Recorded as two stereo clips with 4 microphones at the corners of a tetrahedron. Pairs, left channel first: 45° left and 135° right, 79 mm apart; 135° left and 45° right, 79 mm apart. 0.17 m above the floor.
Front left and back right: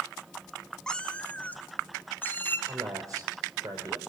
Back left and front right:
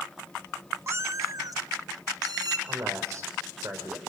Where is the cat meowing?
30° right, 0.9 m; by 2.6 s 15° right, 2.5 m.